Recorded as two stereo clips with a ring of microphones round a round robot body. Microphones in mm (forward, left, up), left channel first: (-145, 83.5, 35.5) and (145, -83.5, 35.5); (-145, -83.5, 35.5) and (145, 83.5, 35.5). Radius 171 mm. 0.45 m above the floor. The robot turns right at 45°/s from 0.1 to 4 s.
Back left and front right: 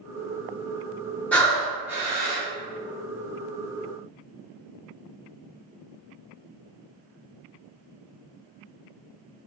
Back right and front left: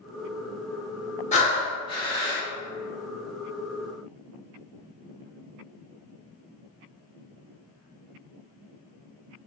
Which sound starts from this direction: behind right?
Breathing, at 1.3 s.